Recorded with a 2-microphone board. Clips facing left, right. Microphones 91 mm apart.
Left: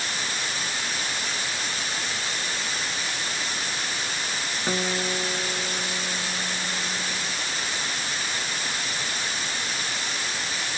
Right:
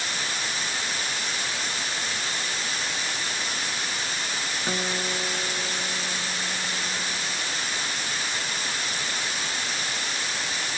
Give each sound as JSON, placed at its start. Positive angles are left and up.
{"t": 4.7, "sound": "a guitar", "side_deg": 10, "distance_m": 0.8}